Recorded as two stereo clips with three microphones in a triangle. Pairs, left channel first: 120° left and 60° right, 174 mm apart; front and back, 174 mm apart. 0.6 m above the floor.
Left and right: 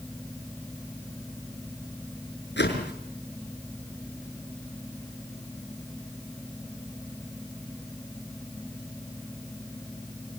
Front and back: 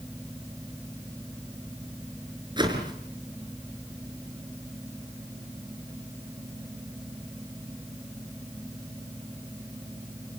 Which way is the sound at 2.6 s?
115° left.